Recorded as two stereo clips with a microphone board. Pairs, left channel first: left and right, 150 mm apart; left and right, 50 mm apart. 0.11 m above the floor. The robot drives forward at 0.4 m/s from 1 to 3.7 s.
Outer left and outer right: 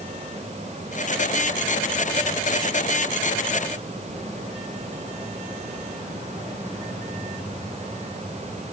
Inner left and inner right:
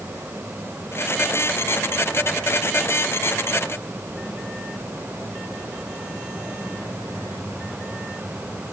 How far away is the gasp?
No gasp in this recording.